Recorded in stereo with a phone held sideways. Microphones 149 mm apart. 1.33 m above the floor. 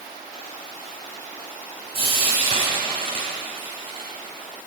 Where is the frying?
40° right (ahead or behind), 6 m.